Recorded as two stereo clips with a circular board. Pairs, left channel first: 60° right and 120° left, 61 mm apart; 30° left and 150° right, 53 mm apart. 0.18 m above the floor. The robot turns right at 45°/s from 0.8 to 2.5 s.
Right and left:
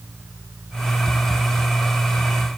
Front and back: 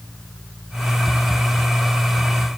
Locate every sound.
Only background noise.